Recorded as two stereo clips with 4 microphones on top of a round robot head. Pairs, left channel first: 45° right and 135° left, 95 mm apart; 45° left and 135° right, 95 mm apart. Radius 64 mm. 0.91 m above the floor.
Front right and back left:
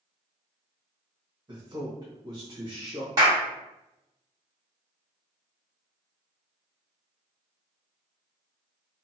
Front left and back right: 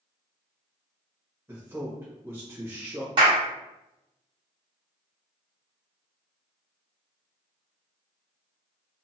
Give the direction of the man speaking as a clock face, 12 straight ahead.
7 o'clock.